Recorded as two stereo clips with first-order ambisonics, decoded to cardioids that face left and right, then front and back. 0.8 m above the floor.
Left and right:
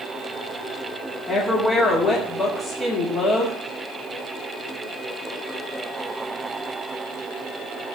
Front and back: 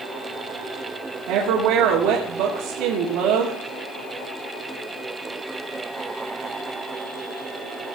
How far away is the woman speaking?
About 1.9 m.